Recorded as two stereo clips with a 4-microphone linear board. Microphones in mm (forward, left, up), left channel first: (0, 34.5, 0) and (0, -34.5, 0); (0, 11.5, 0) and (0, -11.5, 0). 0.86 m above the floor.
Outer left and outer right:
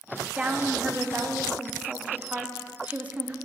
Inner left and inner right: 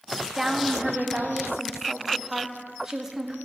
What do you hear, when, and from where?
0.3 s a woman speaking: 20° right (ahead or behind), 0.9 m